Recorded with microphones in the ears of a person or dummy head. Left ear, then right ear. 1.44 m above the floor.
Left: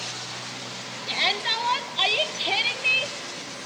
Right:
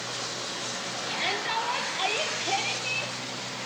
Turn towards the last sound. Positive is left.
turn(degrees=65)  # may be behind; listen again after turning